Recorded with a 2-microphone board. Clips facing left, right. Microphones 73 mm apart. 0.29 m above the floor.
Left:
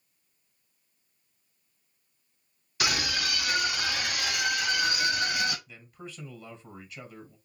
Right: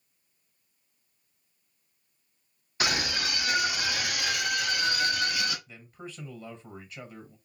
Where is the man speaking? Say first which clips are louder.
Right 1 dB; 20° right (ahead or behind), 1.6 m.